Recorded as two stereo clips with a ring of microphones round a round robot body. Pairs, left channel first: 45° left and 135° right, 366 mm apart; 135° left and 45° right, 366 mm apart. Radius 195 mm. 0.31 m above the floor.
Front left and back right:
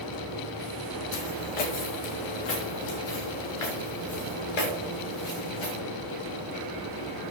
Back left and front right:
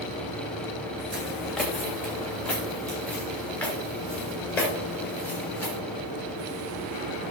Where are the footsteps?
45° left, 1.1 m; by 5.8 s 50° left, 4.5 m.